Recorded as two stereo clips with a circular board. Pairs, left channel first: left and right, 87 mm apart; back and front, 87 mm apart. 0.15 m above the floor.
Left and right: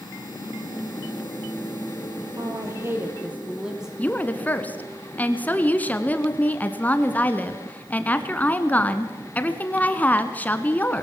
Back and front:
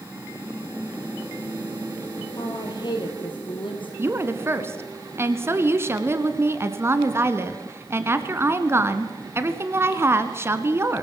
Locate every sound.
2.4 s a woman speaking: 140° right, 4 m; by 3.9 s 175° right, 4 m
4.0 s a woman speaking: 35° left, 1.4 m